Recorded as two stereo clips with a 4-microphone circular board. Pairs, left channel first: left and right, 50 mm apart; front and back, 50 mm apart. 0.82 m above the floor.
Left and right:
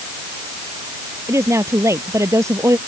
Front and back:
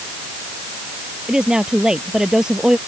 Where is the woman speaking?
105° right.